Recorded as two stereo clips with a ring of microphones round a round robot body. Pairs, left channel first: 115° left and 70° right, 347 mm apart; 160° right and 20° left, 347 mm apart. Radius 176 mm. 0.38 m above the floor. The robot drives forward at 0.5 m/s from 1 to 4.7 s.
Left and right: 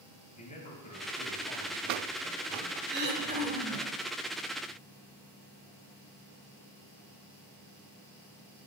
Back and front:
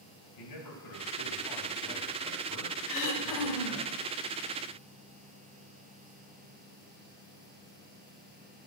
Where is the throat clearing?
125° right, 1.2 m; by 3.9 s 140° right, 1.5 m.